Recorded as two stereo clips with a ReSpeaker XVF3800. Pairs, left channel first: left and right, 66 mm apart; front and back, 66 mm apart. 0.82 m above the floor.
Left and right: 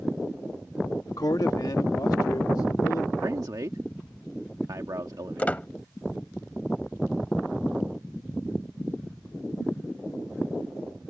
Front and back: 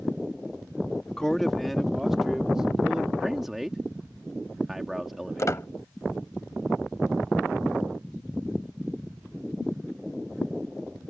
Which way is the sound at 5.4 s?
25° left.